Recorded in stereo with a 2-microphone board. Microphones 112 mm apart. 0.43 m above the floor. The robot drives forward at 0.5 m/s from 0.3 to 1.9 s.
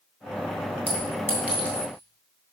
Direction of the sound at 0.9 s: 15° right (ahead or behind).